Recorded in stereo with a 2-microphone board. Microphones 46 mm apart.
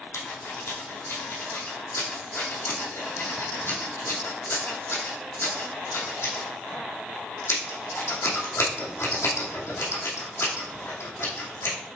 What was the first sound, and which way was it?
Scissors, 75° left (ahead or behind).